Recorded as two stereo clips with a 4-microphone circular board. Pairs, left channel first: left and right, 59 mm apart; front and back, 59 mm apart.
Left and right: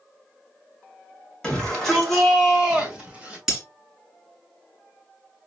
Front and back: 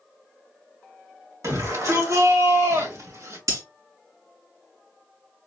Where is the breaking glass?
170° right, 2.5 m.